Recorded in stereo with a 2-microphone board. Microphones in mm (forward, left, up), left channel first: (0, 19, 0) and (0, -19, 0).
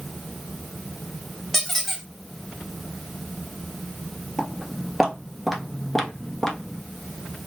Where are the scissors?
No scissors in this recording.